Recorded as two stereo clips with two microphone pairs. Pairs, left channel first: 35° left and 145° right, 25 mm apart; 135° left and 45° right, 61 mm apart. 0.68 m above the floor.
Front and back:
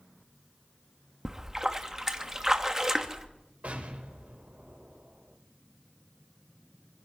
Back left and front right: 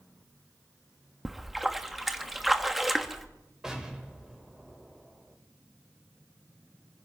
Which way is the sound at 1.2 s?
125° right.